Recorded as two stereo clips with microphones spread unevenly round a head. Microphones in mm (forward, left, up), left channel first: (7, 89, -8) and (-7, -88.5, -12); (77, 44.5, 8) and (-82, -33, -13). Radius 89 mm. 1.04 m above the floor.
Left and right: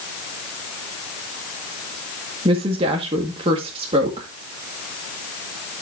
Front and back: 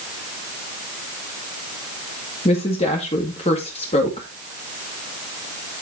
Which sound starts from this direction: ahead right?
A woman speaking, at 2.5 s.